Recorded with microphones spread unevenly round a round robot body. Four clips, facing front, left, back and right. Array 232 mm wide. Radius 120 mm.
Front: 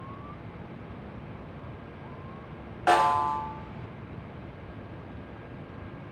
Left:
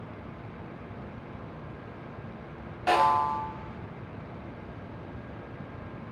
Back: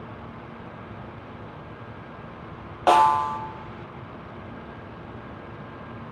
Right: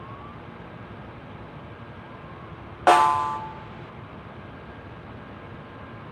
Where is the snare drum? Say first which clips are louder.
Right 5 dB, back 4 dB; 110° right, 0.9 m.